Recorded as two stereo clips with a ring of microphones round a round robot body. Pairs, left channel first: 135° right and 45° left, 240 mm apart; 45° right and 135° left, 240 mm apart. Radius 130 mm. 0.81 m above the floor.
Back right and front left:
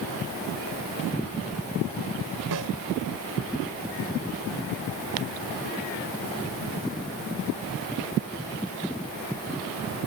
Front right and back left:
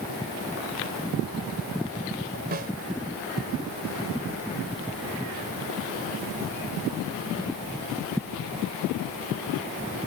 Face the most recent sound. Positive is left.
turn(degrees=75)